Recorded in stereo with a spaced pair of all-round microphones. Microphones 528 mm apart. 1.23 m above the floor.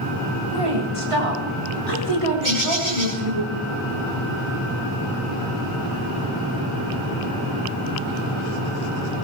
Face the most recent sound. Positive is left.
turn(degrees=-65)  # may be behind; listen again after turning